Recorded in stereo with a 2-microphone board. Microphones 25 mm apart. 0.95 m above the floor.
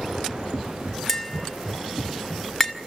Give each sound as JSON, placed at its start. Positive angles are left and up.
{"t": 1.1, "sound": "tapping", "side_deg": 10, "distance_m": 2.0}